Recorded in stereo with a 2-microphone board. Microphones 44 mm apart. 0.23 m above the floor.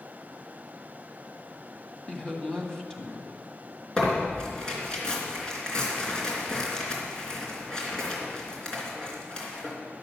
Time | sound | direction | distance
2.1 | a woman speaking | 15° left (ahead or behind) | 1.8 m
4.0 | tearing paper | 15° left (ahead or behind) | 3.5 m